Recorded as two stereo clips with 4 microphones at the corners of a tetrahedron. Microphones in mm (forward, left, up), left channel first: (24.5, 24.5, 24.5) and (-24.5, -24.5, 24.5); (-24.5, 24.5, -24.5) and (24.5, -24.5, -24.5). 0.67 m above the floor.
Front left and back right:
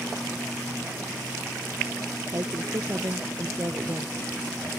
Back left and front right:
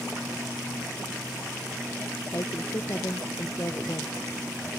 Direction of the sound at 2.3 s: Straight behind.